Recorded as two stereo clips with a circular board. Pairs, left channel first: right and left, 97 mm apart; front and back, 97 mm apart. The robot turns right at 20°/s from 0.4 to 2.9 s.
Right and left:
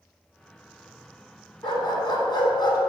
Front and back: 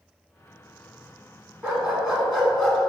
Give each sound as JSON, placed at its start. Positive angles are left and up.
{"t": 1.6, "sound": "a dog barking", "azimuth_deg": -110, "distance_m": 1.4}